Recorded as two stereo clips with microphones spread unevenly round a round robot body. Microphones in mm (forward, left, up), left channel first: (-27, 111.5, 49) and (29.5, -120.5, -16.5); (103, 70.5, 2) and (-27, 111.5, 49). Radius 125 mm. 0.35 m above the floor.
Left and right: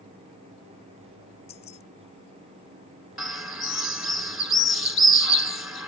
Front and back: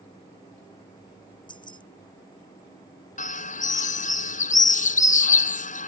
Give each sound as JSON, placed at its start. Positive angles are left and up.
{"t": 1.5, "sound": "keys jangling", "azimuth_deg": 40}
{"t": 3.2, "sound": "a bird", "azimuth_deg": 10}